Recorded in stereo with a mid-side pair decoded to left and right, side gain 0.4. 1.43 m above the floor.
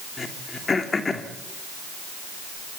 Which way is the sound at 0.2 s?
35° left.